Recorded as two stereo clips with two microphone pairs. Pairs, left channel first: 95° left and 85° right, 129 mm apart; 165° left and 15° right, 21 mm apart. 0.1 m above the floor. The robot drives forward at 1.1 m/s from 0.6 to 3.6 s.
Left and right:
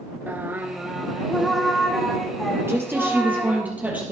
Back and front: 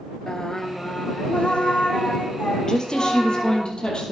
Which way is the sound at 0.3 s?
150° right.